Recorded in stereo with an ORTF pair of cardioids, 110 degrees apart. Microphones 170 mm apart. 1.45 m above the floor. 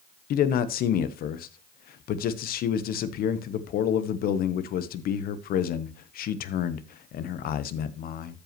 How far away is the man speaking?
About 1.0 m.